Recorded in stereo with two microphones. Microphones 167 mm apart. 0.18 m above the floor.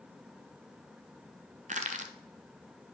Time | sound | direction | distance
1.7 | crushing | 45° right (ahead or behind) | 0.8 m